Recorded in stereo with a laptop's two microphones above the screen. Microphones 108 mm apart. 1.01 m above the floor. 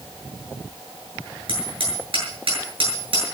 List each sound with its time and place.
1.5 s hammering: 60° right (ahead or behind), 7.5 m